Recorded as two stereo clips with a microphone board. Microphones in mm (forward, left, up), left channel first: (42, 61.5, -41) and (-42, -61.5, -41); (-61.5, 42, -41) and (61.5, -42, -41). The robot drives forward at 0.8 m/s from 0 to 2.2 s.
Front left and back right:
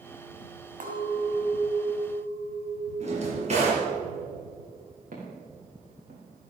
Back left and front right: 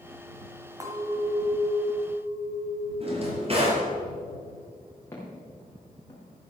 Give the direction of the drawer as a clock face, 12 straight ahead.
3 o'clock.